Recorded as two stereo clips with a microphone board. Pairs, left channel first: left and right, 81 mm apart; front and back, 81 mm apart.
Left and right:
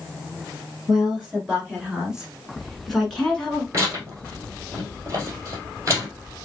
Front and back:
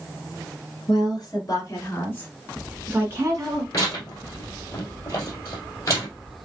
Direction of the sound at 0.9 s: 15° right.